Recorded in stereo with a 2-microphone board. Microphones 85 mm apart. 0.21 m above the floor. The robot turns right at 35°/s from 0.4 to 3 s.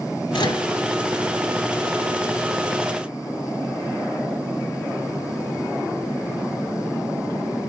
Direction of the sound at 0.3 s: 70° left (ahead or behind).